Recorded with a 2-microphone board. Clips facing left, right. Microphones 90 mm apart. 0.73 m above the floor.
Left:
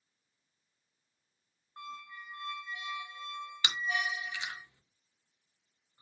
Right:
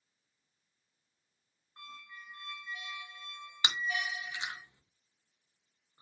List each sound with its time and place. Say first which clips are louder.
1.8 s a squeak: left 6 dB; 25° left (ahead or behind), 0.8 m
3.6 s chewing: left 1 dB; 25° right (ahead or behind), 0.5 m